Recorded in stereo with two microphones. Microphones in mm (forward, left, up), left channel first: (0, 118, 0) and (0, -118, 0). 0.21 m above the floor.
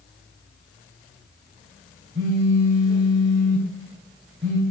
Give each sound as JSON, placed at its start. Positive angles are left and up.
{"t": 2.1, "sound": "a phone buzzing", "side_deg": -55, "distance_m": 4.0}